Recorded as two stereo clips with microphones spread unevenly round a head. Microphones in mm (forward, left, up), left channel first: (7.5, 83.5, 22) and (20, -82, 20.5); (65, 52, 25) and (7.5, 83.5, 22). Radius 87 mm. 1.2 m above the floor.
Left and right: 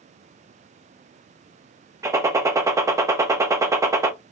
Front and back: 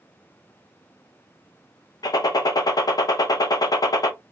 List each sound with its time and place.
2.0 s a gunshot: 15° right, 0.7 m